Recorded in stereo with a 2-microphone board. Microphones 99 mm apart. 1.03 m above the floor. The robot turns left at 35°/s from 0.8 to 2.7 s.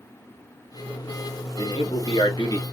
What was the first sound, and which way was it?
A man speaking, 80° left.